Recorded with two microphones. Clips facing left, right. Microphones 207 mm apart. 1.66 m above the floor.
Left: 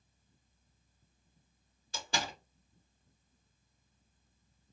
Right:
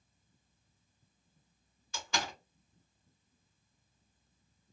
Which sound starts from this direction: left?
A door slam, at 1.9 s.